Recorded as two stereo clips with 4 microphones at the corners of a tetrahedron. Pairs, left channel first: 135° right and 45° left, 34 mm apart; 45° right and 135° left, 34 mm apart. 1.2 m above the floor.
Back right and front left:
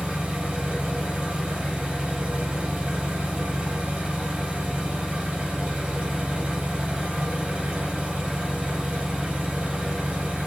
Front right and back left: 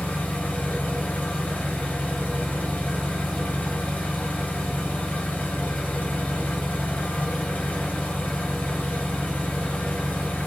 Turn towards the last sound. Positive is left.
turn(degrees=-15)